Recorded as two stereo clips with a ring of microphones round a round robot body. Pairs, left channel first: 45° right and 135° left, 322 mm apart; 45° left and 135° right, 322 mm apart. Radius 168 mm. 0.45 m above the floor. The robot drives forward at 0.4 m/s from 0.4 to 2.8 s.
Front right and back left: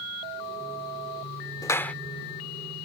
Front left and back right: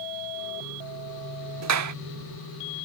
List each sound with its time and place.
1.6 s a clap: 120° right; by 1.9 s 130° right